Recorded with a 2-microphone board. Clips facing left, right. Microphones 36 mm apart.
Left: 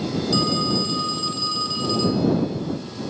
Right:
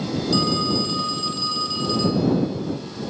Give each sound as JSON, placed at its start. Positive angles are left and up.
{"t": 0.3, "sound": "a phone ringing", "side_deg": 0}